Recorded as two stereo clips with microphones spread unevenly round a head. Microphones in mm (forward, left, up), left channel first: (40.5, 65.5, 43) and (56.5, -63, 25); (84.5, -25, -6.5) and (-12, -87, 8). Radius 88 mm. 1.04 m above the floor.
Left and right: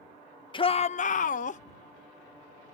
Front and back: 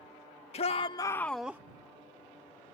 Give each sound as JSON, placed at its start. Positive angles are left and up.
{"t": 0.5, "sound": "a shout", "azimuth_deg": 45}